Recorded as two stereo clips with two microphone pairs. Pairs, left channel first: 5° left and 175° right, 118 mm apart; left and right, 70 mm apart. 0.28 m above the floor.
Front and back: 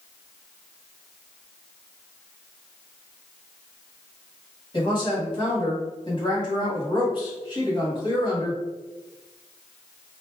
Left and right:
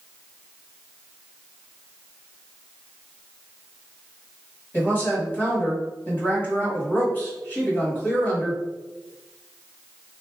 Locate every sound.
4.7 s a woman speaking: 35° left, 1.7 m